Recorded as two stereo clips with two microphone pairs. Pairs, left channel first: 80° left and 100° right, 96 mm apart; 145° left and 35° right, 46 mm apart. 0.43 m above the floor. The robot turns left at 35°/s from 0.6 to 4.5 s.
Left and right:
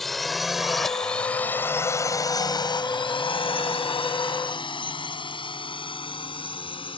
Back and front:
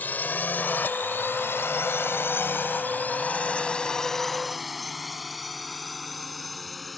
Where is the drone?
170° left; by 7.0 s 60° left.